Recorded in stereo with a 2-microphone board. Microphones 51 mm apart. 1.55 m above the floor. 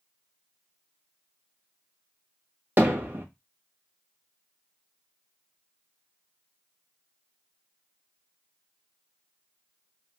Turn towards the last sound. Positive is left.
turn(degrees=-35)  # may be behind; listen again after turning